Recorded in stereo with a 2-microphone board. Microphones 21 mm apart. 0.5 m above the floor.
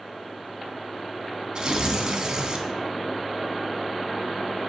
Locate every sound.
1.6 s tearing paper: 50° right (ahead or behind), 1.7 m